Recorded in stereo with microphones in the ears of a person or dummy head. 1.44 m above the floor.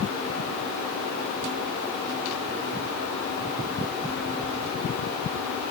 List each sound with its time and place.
Only background noise.